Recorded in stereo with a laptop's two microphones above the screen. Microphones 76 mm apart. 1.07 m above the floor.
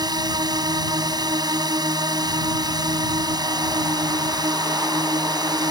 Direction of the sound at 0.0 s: 60° right (ahead or behind).